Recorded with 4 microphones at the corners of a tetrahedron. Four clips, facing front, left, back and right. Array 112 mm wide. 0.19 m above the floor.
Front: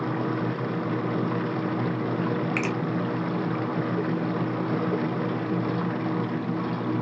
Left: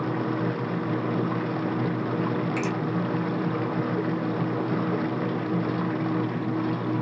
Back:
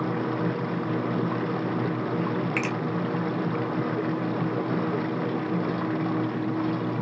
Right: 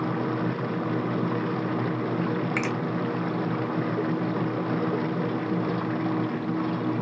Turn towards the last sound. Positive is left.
turn(degrees=-105)